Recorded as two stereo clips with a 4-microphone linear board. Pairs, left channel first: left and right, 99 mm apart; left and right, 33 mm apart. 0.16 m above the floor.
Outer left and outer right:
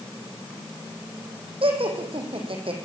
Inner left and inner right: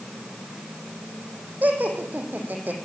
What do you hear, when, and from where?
1.6 s laughter: 65° right (ahead or behind), 8.5 m